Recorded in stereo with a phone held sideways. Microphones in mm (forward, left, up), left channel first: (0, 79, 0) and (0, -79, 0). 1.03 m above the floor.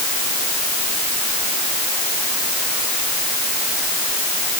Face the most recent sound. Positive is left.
No sound to turn to.